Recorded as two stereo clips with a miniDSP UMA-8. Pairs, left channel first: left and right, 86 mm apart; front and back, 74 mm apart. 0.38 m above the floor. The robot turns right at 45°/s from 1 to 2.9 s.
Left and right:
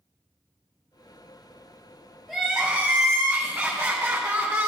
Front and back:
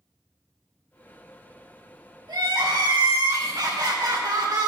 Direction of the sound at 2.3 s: 175° left.